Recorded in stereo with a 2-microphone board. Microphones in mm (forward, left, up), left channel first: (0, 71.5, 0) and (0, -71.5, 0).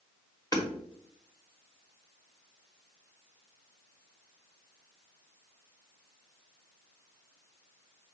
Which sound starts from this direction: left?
Hammering, at 0.5 s.